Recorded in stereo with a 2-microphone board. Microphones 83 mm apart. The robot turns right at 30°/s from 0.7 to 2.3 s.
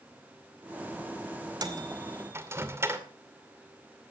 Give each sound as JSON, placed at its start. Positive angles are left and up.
{"t": 1.6, "sound": "a microwave", "side_deg": -50, "distance_m": 2.0}